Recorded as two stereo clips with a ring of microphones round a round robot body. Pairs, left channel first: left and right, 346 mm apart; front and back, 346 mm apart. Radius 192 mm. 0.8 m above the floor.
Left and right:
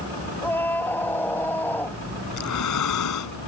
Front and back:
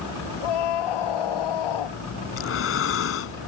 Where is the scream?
5° left.